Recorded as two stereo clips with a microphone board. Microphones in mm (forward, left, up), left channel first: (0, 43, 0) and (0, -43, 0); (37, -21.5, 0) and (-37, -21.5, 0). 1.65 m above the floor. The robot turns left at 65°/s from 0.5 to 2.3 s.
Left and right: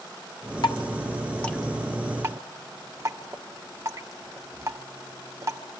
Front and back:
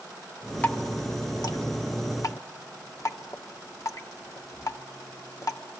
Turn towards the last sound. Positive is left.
turn(degrees=-40)